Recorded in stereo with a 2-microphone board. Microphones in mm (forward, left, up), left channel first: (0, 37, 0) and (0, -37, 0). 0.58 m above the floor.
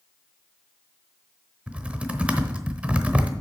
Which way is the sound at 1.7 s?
15° right (ahead or behind).